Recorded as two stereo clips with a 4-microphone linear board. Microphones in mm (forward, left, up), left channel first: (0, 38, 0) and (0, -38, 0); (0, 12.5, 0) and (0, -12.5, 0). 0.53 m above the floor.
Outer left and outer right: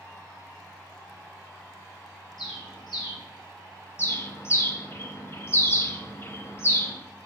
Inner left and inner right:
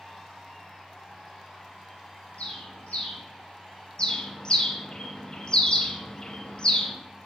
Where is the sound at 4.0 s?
35° left (ahead or behind), 0.6 m.